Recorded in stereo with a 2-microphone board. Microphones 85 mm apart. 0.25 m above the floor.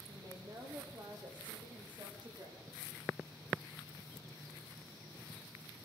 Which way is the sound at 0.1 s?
45° right (ahead or behind).